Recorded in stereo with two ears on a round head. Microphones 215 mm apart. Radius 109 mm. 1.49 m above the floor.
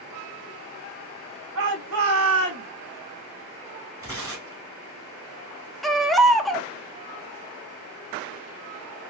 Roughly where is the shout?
Right.